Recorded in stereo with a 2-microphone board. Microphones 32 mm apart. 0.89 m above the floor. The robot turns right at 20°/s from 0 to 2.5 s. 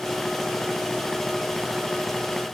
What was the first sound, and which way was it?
Only background noise.